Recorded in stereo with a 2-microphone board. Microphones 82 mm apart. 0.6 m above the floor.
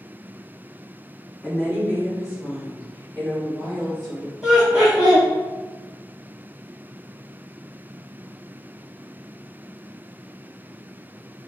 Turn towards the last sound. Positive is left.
turn(degrees=-10)  # may be behind; listen again after turning